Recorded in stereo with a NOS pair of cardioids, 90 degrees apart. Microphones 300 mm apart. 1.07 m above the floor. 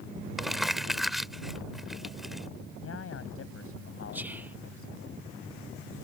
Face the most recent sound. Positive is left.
turn(degrees=-5)